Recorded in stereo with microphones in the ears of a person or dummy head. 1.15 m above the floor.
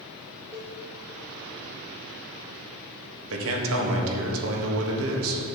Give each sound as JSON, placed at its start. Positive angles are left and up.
{"t": 0.5, "sound": "a cowbell", "side_deg": -10, "distance_m": 0.6}
{"t": 3.3, "sound": "a man speaking", "side_deg": -75, "distance_m": 1.6}